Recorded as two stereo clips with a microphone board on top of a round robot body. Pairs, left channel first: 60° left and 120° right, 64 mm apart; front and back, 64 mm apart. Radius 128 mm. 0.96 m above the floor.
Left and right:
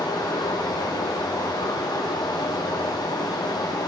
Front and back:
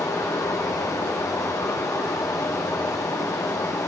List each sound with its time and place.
0.0 s running water: 45° left, 1.2 m